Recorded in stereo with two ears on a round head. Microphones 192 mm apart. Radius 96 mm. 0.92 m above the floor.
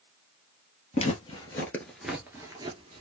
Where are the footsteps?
30° left (ahead or behind), 1.0 m; by 3.0 s 30° right (ahead or behind), 1.0 m.